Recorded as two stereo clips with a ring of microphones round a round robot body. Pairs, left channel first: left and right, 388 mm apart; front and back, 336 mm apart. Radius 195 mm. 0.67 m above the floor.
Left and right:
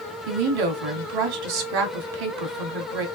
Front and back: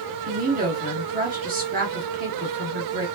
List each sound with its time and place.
0.3 s a woman speaking: 115° right, 1.2 m